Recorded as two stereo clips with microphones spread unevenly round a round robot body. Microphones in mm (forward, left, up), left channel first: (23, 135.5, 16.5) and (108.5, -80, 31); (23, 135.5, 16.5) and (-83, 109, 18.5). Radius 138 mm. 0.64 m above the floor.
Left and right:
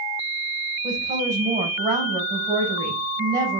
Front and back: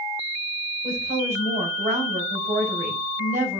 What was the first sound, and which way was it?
A woman speaking, 145° right.